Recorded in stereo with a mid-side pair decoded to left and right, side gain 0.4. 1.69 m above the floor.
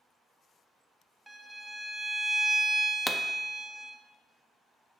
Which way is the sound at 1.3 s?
10° right.